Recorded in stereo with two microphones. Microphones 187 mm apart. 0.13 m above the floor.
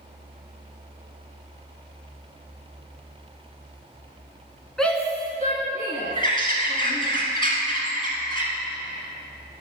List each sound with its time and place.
4.8 s a shout: centre (ahead or behind), 1.2 m; by 7.1 s 55° left (ahead or behind), 3 m
6.2 s a bird: 25° left (ahead or behind), 1.5 m